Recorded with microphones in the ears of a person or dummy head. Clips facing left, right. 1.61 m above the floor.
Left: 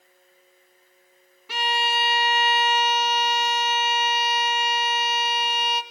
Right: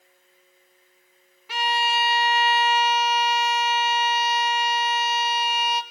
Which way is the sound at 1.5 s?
85° left.